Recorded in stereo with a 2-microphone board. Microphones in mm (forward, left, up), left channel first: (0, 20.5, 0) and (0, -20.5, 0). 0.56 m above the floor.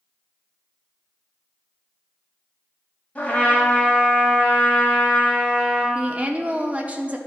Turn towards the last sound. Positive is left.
turn(degrees=-35)  # may be behind; listen again after turning